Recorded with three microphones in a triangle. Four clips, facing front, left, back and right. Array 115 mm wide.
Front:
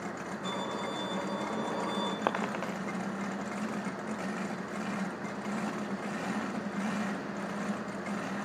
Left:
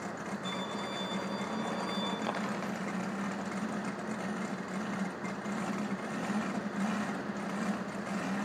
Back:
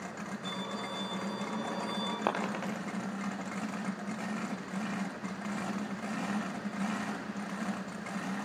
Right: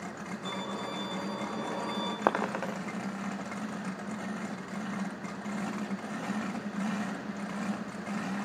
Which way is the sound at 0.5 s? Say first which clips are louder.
Right 3 dB, front 5 dB; 25° right.